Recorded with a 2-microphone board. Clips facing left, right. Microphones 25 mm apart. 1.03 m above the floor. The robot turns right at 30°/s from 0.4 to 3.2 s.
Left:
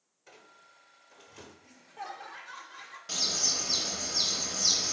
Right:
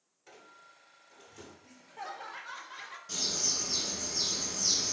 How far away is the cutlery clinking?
I don't hear cutlery clinking.